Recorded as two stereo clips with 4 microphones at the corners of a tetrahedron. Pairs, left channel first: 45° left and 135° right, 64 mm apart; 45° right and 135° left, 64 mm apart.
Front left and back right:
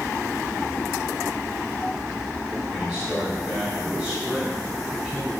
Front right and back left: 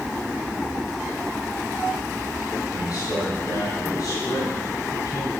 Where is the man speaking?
55° right, 2.5 m.